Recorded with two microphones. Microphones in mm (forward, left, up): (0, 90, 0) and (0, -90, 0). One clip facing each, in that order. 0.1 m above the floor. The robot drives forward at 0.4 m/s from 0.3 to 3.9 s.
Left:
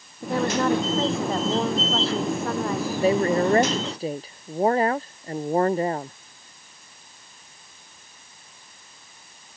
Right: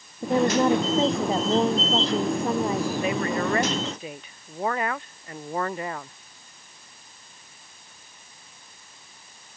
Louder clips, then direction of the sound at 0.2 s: Right 2 dB; 20° right (ahead or behind).